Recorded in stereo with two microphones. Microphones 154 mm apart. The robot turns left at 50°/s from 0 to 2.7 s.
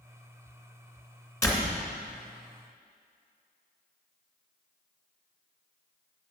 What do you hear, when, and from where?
1.4 s a door slam: 20° left (ahead or behind), 2 m; by 1.8 s centre (ahead or behind), 2 m